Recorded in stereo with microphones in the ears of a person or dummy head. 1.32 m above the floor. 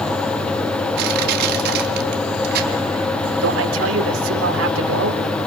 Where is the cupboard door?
No cupboard door in this recording.